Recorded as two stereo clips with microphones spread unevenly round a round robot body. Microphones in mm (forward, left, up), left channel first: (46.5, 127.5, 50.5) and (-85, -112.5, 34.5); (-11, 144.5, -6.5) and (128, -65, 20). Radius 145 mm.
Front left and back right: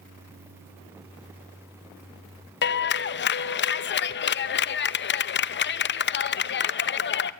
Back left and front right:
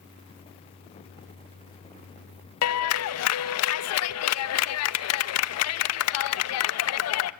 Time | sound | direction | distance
2.6 | a clap | 115° left | 0.9 m